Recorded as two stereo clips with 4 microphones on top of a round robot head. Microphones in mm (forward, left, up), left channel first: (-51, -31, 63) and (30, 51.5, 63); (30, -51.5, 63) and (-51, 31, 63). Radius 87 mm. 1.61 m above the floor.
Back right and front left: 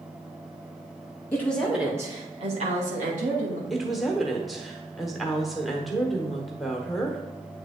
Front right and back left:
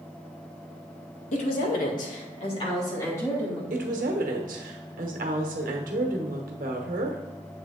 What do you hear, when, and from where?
1.3 s a woman speaking: 60° right, 1.5 m; by 3.6 s 30° left, 2.5 m
3.7 s a woman speaking: 135° left, 1.0 m